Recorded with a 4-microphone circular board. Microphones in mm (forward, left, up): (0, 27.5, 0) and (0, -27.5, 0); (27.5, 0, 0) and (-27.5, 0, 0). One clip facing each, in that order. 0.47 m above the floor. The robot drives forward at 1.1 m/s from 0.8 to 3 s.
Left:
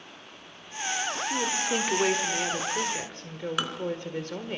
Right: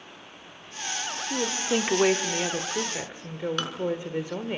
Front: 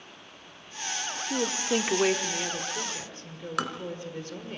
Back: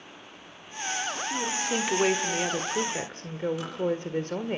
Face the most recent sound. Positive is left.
turn(degrees=10)